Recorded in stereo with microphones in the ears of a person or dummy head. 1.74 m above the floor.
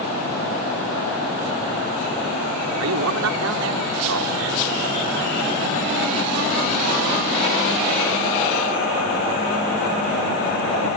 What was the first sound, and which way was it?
A man speaking, 80° right.